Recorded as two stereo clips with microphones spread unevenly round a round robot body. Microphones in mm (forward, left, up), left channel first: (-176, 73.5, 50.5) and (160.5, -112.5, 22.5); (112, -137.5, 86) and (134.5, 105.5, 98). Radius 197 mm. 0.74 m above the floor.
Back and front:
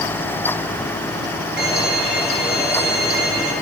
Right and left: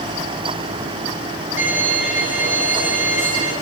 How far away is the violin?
About 10 m.